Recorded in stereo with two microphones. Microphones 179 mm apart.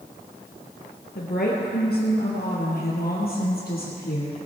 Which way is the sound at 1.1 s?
65° left (ahead or behind).